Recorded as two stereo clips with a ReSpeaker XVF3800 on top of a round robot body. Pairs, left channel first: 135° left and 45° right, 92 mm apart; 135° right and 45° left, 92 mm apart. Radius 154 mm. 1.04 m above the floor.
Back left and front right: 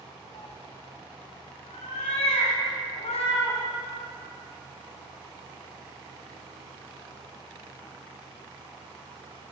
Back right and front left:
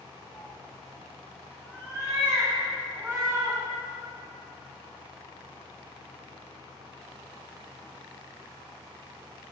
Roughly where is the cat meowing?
Behind left.